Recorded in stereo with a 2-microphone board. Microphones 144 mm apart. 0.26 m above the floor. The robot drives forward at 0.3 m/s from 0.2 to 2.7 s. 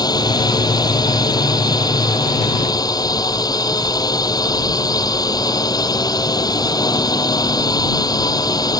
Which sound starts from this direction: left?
A drone, at 0.0 s.